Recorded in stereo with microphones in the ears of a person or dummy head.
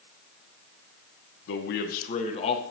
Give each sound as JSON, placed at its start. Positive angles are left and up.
{"t": 1.5, "sound": "a man speaking", "side_deg": 65, "distance_m": 0.7}